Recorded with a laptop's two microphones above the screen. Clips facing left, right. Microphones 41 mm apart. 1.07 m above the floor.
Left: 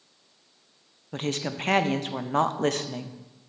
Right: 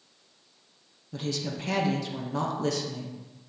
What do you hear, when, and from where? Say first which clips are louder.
1.1 s a woman speaking: left 3 dB; 50° left (ahead or behind), 0.5 m